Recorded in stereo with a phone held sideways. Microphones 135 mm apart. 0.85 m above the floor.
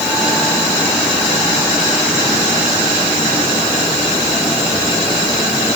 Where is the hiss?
No hiss in this recording.